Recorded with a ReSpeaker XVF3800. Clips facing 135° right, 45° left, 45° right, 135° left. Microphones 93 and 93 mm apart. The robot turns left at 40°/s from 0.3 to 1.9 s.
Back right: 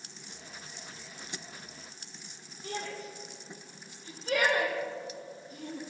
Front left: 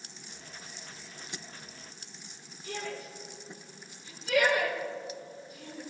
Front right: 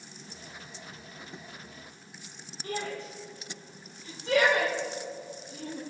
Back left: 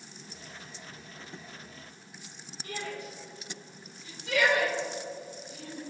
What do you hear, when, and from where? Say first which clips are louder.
2.6 s a shout: even, front right 3 dB; 90° right, 5.5 m